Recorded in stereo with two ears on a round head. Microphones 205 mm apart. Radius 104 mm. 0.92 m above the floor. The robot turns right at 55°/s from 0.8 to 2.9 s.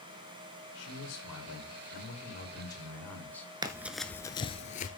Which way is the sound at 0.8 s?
55° left.